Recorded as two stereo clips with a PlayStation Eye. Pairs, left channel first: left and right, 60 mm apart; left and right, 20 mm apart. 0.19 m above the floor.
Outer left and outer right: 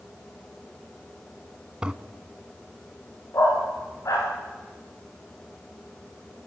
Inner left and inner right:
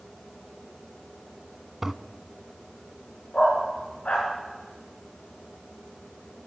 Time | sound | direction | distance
1.8 | a toilet flushing | 15° right (ahead or behind) | 0.8 m
3.3 | a dog barking | 70° left (ahead or behind) | 9 m